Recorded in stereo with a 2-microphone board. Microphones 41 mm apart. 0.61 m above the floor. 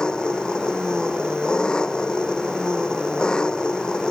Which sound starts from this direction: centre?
An engine running, at 0.0 s.